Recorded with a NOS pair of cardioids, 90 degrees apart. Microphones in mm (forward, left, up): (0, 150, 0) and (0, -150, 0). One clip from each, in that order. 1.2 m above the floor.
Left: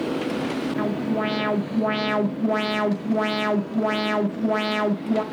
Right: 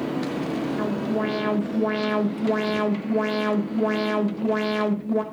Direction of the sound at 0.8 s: 40° left.